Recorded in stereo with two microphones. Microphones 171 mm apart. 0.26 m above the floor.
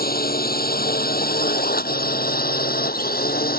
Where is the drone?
60° left (ahead or behind).